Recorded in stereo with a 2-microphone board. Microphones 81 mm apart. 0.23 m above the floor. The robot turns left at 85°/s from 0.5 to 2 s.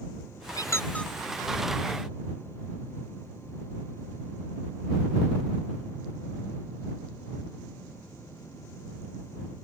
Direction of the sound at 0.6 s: 50° left (ahead or behind).